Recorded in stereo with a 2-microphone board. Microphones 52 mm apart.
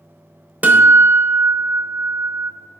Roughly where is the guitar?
Right.